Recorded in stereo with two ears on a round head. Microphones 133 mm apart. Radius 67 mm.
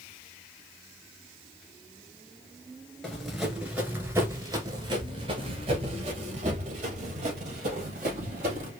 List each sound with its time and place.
3.0 s running footsteps: 5° left (ahead or behind), 1.7 m; by 8.7 s 55° right (ahead or behind), 3.5 m